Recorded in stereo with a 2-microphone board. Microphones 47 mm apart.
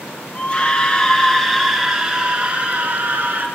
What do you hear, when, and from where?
0.3 s a scream: 25° left (ahead or behind), 1.6 m; by 3.5 s 40° right (ahead or behind), 1.7 m